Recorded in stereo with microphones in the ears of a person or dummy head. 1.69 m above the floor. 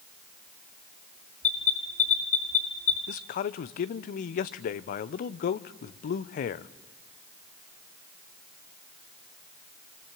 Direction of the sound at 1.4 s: 45° left (ahead or behind).